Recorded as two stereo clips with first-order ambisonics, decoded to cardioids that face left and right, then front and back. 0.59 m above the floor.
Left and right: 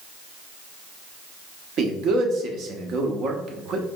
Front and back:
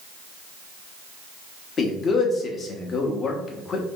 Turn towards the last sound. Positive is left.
turn(degrees=-60)